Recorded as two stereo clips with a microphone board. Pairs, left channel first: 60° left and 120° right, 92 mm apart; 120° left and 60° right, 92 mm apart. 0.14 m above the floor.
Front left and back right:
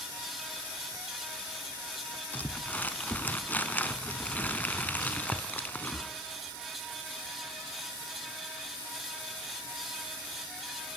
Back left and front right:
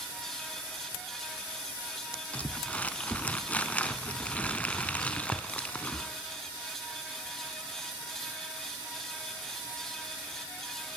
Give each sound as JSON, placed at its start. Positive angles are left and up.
{"t": 2.3, "sound": "crumpling", "azimuth_deg": 80, "distance_m": 1.2}